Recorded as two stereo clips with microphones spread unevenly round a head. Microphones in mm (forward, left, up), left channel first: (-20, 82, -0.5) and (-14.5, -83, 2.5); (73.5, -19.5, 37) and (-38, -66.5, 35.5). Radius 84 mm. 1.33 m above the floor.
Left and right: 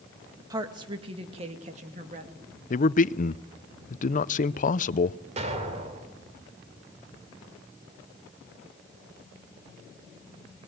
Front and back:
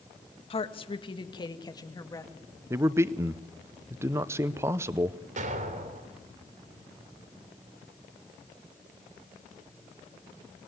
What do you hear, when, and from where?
0.5 s a woman speaking: 20° right, 1.8 m; by 2.3 s 40° right, 2.5 m
2.7 s a man speaking: 135° left, 0.6 m
5.4 s an explosion: 140° right, 3 m